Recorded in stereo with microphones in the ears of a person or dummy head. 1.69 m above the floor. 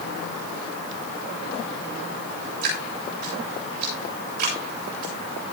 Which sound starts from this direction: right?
Dripping, at 2.6 s.